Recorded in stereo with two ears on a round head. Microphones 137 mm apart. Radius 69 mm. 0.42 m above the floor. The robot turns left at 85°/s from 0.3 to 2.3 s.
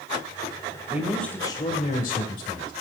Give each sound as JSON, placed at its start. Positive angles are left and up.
{"t": 0.9, "sound": "a man speaking", "azimuth_deg": -160, "distance_m": 1.6}